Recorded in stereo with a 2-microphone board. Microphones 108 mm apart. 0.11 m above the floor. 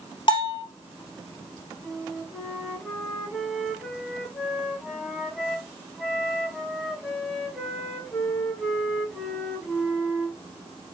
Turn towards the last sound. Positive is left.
turn(degrees=5)  # may be behind; listen again after turning